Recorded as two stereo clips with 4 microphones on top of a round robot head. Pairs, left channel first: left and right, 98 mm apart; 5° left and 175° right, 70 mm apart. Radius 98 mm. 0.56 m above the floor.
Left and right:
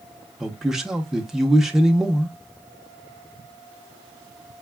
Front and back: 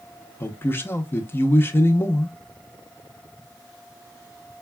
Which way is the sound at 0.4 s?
10° right.